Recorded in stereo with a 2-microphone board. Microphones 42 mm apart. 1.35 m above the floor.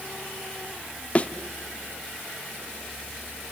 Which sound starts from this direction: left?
A thud, at 1.1 s.